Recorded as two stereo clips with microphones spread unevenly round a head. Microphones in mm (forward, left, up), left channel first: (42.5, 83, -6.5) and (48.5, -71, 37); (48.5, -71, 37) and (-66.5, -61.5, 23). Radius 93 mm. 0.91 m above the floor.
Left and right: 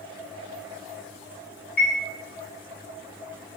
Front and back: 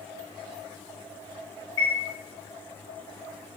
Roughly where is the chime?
Ahead left.